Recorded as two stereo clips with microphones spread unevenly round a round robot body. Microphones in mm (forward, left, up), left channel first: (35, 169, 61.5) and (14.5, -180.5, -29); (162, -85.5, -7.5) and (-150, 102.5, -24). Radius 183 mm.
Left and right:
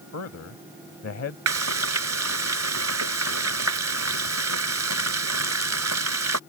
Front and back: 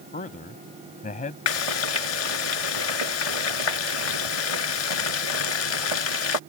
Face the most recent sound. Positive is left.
turn(degrees=-45)